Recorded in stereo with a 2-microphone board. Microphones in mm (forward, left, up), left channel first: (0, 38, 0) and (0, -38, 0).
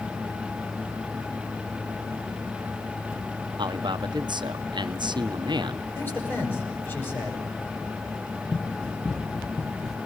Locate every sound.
3.6 s a man speaking: 80° right, 0.9 m
6.0 s a man speaking: 30° left (ahead or behind), 9 m
8.5 s running footsteps: 10° left (ahead or behind), 3 m; by 10.0 s 5° left (ahead or behind), 1.7 m